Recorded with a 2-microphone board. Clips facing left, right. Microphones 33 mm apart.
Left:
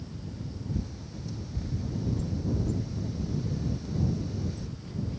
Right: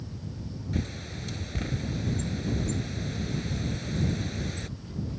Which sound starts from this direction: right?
A bird, at 0.7 s.